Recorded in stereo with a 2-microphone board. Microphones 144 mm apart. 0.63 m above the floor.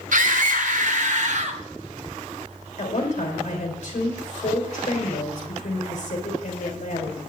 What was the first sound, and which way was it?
A scream, 65° right (ahead or behind).